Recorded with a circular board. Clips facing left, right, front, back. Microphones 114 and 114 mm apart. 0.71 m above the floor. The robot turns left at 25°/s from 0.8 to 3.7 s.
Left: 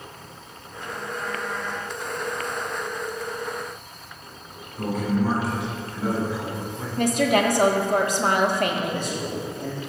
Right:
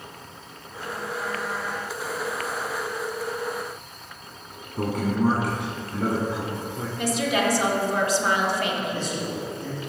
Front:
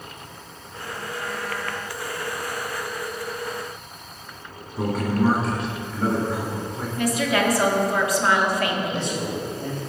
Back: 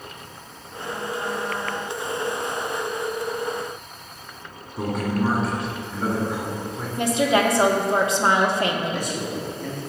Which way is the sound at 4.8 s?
90° right.